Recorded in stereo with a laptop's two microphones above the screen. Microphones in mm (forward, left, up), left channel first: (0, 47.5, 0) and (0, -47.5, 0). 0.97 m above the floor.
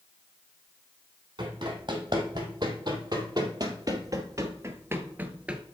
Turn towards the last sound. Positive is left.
turn(degrees=-10)  # may be behind; listen again after turning